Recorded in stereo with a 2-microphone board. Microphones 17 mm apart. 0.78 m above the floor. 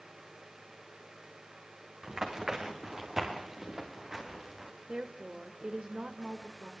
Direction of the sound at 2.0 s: 45° right (ahead or behind).